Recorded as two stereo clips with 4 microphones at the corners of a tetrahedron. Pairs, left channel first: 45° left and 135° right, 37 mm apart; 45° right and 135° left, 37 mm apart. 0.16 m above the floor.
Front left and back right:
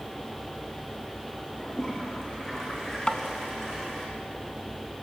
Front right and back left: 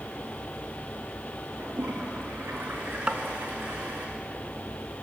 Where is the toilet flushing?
120° left, 6 m.